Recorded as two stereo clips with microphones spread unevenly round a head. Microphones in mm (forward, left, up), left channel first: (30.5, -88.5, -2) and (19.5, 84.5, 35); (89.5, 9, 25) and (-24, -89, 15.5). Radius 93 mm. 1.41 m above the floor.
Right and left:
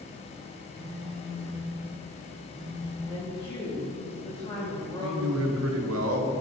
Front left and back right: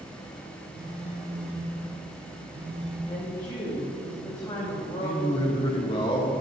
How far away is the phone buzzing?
About 2 m.